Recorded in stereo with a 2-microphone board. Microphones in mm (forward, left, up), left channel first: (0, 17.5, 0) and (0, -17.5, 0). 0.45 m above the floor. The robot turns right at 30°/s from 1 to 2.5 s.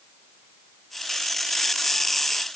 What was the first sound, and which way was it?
Only background noise.